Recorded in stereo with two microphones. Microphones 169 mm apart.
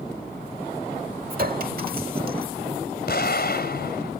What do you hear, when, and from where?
1.3 s a clink: 60° right (ahead or behind)
3.1 s an explosion: 70° left (ahead or behind)